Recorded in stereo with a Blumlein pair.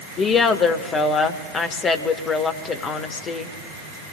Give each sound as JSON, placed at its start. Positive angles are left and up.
{"t": 0.2, "sound": "a woman speaking", "azimuth_deg": 25, "distance_m": 1.2}